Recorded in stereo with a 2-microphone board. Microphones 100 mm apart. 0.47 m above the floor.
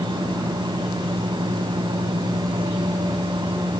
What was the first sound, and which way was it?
Only background noise.